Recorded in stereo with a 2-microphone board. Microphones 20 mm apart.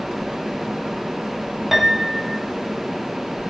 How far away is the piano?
About 1.2 m.